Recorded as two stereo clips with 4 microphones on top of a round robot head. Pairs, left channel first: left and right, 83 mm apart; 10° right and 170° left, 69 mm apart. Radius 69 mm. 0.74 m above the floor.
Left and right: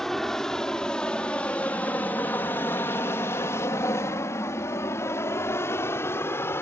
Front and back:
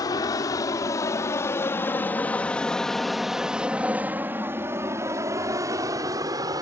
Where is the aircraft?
5° left; by 6.6 s 150° left.